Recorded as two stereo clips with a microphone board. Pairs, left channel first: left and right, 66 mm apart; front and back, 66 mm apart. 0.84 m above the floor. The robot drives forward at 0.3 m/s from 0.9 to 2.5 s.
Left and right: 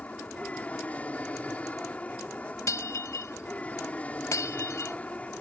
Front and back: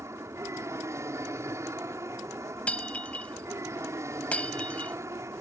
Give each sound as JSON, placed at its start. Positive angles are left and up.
{"t": 0.0, "sound": "an aircraft", "azimuth_deg": 155}
{"t": 2.7, "sound": "breaking glass", "azimuth_deg": 65}